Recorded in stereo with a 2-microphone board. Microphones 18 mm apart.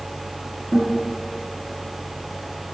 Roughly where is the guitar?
Right.